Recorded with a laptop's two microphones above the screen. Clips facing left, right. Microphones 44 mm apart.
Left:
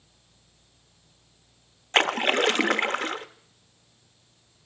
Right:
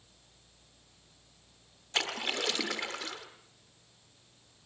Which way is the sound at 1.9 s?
45° left (ahead or behind).